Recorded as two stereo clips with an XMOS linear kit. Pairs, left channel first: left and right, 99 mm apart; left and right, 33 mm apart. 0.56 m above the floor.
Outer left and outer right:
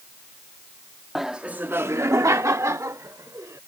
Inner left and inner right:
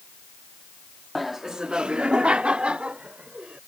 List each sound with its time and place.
1.1 s laughter: centre (ahead or behind); by 3.6 s 30° right (ahead or behind)